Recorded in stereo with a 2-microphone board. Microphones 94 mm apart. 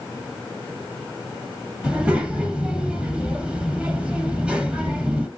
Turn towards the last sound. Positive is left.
turn(degrees=-10)  # may be behind; listen again after turning